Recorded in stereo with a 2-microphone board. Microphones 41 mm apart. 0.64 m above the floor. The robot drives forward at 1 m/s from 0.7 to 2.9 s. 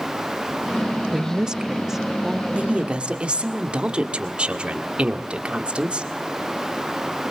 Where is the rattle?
I don't hear a rattle.